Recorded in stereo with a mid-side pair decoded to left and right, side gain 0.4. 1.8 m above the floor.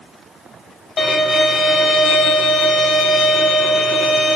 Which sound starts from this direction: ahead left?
A violin, at 1.0 s.